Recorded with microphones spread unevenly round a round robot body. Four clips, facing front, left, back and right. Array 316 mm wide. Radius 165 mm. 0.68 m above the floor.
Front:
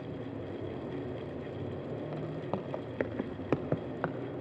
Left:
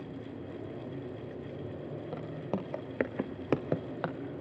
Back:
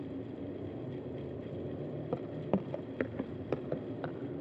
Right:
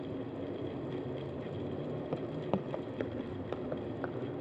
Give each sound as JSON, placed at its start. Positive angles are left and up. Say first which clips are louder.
{"t": 2.1, "sound": "footsteps", "louder": "right 1 dB, back 5 dB", "azimuth_deg": -165, "distance_m": 1.4}